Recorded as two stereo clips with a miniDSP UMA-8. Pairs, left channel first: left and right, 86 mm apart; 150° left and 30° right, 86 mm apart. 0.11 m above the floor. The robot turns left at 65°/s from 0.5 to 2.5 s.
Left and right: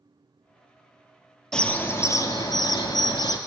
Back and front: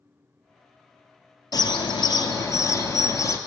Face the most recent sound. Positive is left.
turn(degrees=110)